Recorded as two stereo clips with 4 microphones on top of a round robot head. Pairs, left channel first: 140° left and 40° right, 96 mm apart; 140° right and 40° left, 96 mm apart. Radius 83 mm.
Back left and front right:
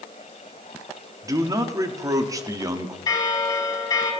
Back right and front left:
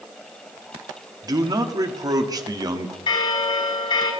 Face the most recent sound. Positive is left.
turn(degrees=-175)